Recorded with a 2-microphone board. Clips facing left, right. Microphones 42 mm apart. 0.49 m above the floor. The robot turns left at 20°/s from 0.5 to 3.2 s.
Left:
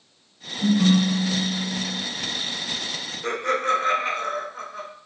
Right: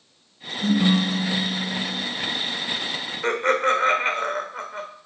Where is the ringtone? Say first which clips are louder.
Left 1 dB; 35° left (ahead or behind), 5 m; by 2.0 s 10° left (ahead or behind), 5 m.